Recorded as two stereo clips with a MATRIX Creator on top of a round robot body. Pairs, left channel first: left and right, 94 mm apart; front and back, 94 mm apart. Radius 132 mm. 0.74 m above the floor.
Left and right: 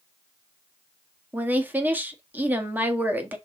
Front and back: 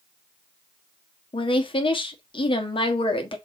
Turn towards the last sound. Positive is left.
turn(degrees=-20)